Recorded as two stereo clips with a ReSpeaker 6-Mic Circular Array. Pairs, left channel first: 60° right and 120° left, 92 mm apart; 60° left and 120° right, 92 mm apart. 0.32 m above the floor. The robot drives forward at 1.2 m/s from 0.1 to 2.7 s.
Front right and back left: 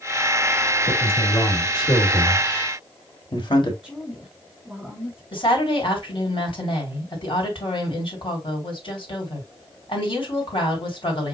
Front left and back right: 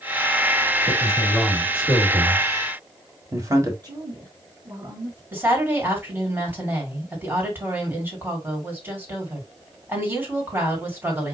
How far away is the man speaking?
About 3.5 m.